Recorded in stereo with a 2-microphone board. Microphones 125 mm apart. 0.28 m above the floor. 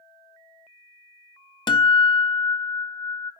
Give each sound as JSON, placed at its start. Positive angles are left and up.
{"t": 1.7, "sound": "a guitar", "side_deg": 35, "distance_m": 0.6}